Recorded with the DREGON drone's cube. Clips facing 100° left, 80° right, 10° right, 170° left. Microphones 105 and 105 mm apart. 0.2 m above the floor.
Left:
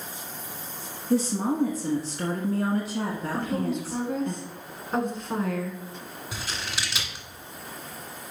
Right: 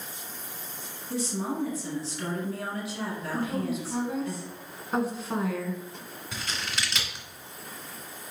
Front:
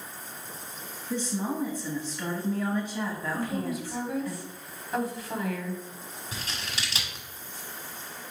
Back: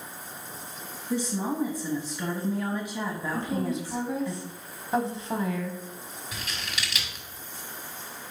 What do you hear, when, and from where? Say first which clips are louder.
1.1 s a woman speaking: left 7 dB, back 2 dB; 100° left, 1.2 m
3.3 s a woman speaking: left 1 dB, back 3 dB; 160° right, 1.7 m
6.3 s scissors: even, back 1 dB; 20° left, 1.8 m